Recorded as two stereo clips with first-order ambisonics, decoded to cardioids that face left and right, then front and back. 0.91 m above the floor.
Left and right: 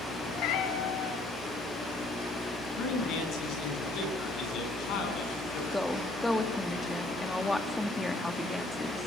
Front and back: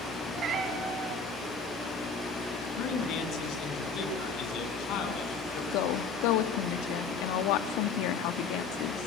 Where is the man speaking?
45° left, 8 m.